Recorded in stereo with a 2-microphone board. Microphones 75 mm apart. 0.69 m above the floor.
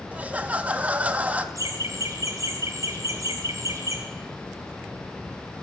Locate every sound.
0.1 s laughter: 20° right (ahead or behind), 0.8 m
1.6 s laughter: 45° right (ahead or behind), 3.5 m